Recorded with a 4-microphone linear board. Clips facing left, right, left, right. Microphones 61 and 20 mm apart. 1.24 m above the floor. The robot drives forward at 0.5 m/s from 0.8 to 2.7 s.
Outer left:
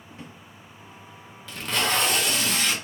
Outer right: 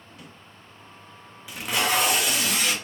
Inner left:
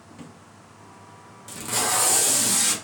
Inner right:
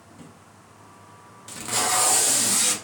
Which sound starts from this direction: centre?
Tape being pulled, at 1.5 s.